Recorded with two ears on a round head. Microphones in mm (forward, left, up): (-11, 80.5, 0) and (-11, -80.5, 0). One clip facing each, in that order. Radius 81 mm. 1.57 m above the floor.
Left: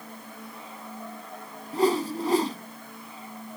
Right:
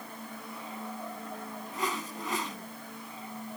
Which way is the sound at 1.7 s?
30° left (ahead or behind).